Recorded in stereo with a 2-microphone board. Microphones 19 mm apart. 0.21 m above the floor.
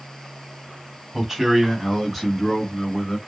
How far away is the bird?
No bird in this recording.